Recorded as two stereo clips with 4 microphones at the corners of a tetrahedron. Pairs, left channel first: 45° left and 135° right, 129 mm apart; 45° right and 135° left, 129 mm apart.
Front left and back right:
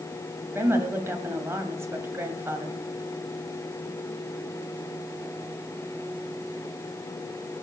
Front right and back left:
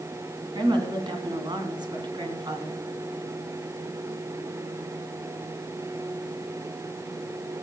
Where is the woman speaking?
165° left, 2 m.